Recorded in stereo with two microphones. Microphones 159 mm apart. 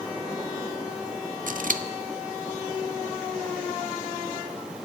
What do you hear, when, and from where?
1.5 s scissors: 65° right (ahead or behind), 0.5 m